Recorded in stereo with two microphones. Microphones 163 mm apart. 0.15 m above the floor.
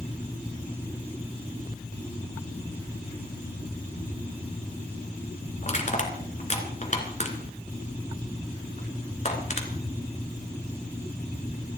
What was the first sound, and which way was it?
Crushing, 45° left (ahead or behind).